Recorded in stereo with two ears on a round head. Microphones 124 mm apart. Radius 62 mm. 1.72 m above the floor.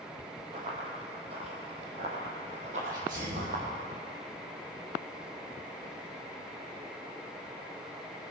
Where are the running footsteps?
45° right (ahead or behind), 3.5 m; by 3.6 s 60° right (ahead or behind), 5 m.